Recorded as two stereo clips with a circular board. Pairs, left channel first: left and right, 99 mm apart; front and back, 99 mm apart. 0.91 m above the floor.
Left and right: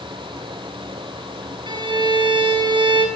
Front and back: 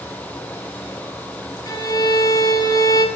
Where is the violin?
50° right, 8 m.